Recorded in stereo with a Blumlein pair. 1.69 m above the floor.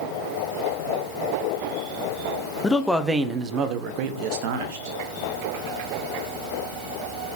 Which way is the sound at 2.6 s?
15° left.